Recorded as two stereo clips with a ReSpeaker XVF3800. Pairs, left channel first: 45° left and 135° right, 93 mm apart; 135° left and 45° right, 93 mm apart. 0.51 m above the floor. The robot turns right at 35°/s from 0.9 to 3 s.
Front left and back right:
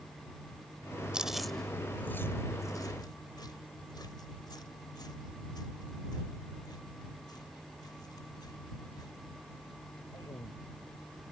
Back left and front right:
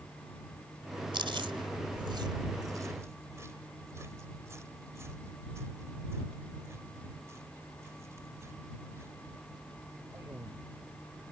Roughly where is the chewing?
Ahead right.